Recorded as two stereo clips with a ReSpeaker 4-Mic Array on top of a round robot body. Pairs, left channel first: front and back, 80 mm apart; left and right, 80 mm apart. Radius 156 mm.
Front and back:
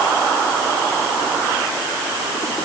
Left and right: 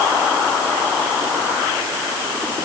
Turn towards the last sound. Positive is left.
No sound to turn to.